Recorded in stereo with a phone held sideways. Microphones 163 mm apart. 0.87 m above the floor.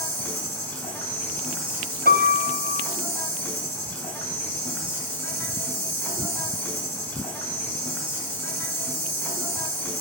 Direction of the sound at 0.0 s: 15° left (ahead or behind).